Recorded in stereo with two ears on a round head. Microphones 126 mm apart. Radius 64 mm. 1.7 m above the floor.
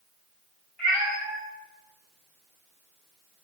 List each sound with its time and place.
0.8 s a cat meowing: 5° left (ahead or behind), 4 m; by 3.4 s 20° right (ahead or behind), 3 m